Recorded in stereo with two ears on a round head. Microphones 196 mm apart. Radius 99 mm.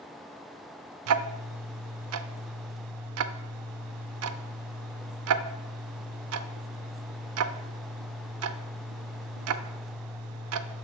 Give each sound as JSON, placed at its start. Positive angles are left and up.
{"t": 1.1, "sound": "ticking", "side_deg": -75, "distance_m": 0.5}